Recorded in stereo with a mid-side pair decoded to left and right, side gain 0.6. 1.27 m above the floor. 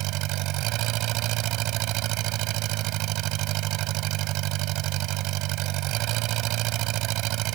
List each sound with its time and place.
0.0 s an engine running: 70° right